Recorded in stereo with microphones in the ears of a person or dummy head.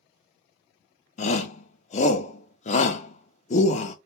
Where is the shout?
35° left (ahead or behind), 0.5 m.